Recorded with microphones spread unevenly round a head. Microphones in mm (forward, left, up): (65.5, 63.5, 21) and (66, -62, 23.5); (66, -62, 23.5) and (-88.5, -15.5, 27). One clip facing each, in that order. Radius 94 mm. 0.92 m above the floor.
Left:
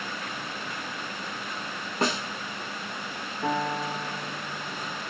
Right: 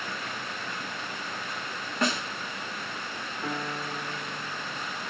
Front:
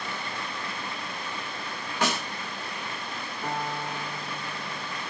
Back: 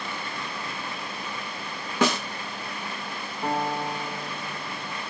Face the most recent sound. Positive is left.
turn(degrees=105)